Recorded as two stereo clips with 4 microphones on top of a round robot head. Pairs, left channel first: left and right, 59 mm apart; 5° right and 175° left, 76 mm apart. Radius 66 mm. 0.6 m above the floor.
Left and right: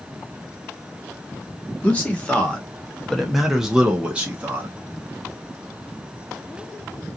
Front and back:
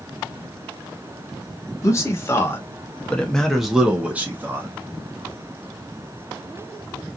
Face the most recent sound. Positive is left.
turn(degrees=-140)